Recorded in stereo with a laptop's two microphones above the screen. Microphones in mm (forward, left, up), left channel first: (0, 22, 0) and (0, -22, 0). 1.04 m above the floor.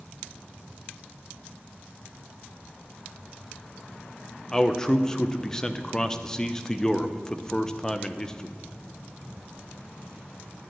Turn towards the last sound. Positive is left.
turn(degrees=15)  # may be behind; listen again after turning